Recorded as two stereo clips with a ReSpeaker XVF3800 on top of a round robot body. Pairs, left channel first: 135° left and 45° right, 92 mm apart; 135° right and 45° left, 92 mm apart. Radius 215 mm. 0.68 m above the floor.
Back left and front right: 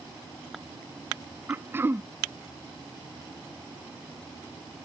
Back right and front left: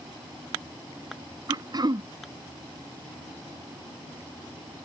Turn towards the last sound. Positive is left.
turn(degrees=15)